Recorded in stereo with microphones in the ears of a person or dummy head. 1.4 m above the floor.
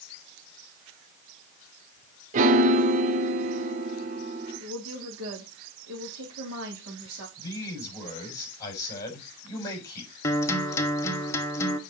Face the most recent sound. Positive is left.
turn(degrees=15)  # may be behind; listen again after turning